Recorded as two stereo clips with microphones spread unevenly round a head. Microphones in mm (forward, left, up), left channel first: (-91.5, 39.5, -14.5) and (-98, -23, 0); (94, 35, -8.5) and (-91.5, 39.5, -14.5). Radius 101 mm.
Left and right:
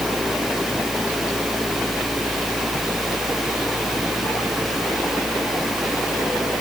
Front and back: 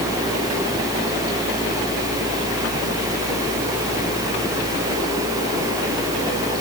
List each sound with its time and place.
Only background noise.